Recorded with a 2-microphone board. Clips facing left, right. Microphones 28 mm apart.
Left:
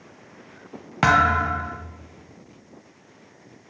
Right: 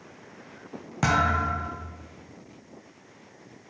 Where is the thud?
40° left (ahead or behind), 0.9 m.